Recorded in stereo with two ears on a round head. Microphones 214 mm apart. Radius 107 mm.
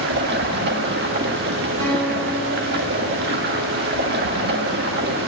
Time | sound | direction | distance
0.0 | running water | 45° right (ahead or behind) | 1.5 m
1.8 | a guitar | 60° right (ahead or behind) | 5 m